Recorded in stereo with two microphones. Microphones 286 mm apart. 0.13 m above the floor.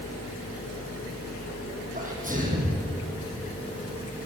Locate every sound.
1.9 s a sneeze: 30° right (ahead or behind), 7.5 m